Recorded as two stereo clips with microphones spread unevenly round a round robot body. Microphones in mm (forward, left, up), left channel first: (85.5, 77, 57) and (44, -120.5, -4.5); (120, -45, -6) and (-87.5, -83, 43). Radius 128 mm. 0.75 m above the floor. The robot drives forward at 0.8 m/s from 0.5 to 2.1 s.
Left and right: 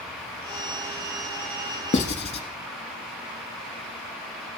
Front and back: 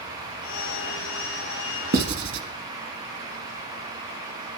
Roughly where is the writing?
Behind left.